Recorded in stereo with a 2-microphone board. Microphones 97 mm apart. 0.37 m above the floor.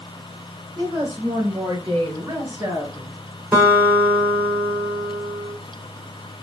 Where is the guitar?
15° right (ahead or behind), 1.6 m.